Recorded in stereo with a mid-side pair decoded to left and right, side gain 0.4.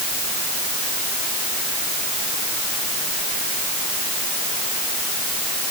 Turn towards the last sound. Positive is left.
No sound to turn to.